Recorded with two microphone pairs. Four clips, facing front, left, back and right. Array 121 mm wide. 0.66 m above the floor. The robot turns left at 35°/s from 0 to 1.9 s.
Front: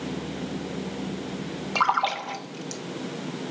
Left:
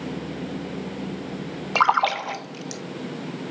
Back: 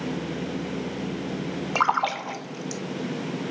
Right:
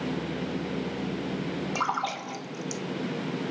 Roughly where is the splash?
Left.